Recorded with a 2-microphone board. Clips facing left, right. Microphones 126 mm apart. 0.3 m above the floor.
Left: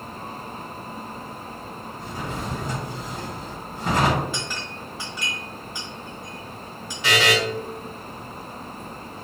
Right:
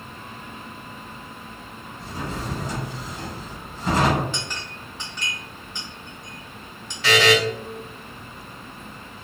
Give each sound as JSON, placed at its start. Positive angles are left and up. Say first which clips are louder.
{"t": 2.0, "sound": "a drawer", "louder": "right 1 dB", "side_deg": 50, "distance_m": 1.6}
{"t": 4.3, "sound": "a clink", "louder": "left 2 dB", "side_deg": 5, "distance_m": 1.0}
{"t": 7.0, "sound": "a buzzer", "louder": "right 3 dB", "side_deg": 10, "distance_m": 1.8}